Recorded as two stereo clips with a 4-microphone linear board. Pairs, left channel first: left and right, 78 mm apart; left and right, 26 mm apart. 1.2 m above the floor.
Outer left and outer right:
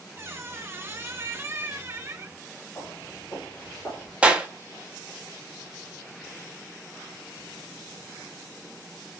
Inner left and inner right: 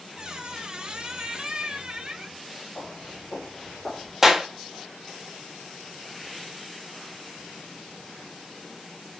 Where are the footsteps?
35° left (ahead or behind), 3 m; by 4.1 s 25° left (ahead or behind), 3.5 m.